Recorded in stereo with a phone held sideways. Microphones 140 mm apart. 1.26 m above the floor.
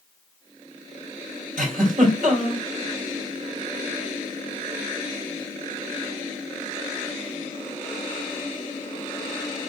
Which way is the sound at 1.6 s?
80° right.